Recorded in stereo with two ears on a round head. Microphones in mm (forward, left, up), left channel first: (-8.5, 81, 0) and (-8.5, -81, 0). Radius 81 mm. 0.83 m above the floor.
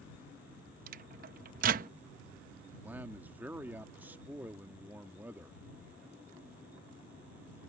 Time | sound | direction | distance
0.9 | a microwave | 50° right (ahead or behind) | ?
2.8 | a man speaking | 10° right (ahead or behind) | ?